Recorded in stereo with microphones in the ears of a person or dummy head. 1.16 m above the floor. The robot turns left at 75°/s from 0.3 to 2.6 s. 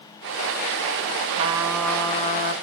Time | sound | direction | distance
1.3 | a trumpet | 145° right | 1.6 m